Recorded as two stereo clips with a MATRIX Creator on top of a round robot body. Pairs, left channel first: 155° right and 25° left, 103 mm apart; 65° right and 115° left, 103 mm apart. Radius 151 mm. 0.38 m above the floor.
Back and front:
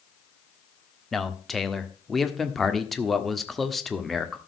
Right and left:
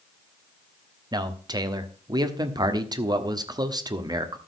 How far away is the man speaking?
About 1.6 m.